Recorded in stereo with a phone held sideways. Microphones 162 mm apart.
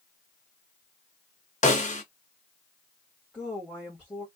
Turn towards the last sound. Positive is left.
turn(degrees=10)  # may be behind; listen again after turning